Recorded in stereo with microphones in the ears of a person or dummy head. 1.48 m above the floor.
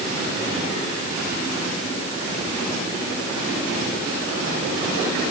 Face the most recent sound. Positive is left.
No sound to turn to.